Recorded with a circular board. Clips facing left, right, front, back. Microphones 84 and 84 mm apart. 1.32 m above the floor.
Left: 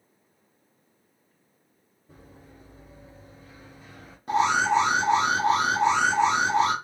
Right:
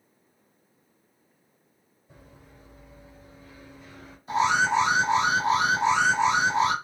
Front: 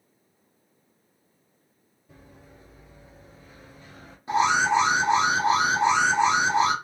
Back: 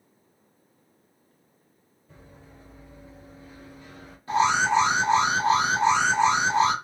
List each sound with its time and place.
2.1 s running footsteps: 70° left, 1.9 m; by 4.2 s 10° left, 1.4 m
4.3 s an alarm: 70° left, 1.1 m